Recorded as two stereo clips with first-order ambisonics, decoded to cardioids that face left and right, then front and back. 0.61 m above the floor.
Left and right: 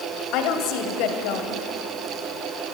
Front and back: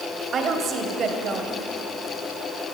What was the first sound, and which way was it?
A woman speaking, 120° left.